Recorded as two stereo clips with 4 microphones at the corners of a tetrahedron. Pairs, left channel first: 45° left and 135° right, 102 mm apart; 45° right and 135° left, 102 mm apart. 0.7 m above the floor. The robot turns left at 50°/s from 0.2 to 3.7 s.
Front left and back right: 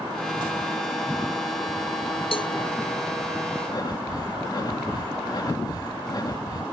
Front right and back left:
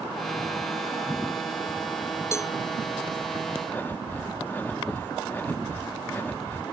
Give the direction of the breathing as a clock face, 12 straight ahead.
11 o'clock.